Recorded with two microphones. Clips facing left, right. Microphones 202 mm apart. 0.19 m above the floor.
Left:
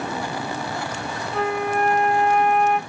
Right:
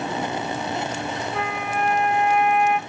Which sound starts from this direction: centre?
A flute, at 1.3 s.